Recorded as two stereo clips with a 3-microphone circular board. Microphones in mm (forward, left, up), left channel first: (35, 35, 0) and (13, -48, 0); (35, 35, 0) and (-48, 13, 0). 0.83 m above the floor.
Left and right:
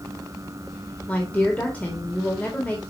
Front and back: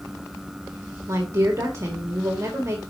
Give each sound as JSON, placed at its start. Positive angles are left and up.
{"t": 1.1, "sound": "a woman speaking", "azimuth_deg": 145, "distance_m": 2.0}